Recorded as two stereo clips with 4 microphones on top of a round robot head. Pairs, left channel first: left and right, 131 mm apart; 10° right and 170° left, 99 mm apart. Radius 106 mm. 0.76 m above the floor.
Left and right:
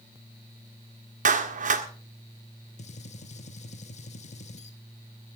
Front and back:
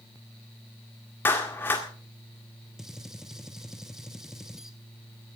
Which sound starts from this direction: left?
A gunshot, at 2.8 s.